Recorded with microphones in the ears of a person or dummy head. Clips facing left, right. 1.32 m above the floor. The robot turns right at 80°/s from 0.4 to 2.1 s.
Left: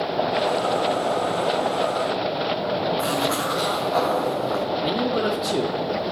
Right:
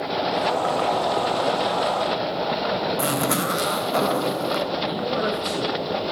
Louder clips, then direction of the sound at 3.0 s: Even; 30° right (ahead or behind).